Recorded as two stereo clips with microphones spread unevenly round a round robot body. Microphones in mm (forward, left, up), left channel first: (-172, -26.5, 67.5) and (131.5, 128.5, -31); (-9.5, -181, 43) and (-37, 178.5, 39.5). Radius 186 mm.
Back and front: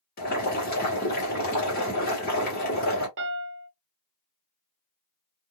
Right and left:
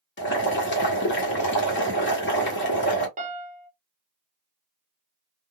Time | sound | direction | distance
0.2 | boiling | 80° right | 1.4 m
3.2 | a piano | 30° left | 0.7 m